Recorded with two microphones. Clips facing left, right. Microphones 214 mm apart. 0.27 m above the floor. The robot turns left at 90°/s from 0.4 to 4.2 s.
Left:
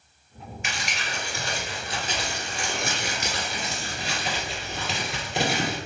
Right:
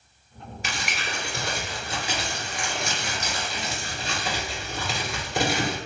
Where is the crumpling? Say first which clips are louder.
Right 2 dB; 35° right (ahead or behind), 1.8 m; by 5.8 s centre (ahead or behind), 1.8 m.